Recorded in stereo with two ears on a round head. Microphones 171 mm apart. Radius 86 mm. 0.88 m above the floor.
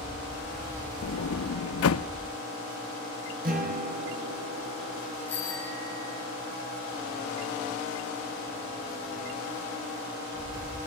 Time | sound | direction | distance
1.0 | a sliding door | 80° left | 0.6 m
3.4 | a guitar | 50° right (ahead or behind) | 5 m
5.3 | a bicycle bell | 10° left (ahead or behind) | 4.5 m